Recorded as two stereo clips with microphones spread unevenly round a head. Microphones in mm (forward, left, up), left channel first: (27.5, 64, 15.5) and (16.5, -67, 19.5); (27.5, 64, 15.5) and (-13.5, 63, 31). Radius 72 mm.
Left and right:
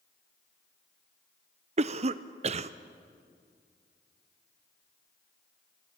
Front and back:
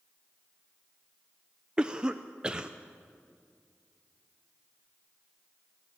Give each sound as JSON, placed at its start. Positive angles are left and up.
{"t": 1.8, "sound": "a cough", "azimuth_deg": -90, "distance_m": 0.6}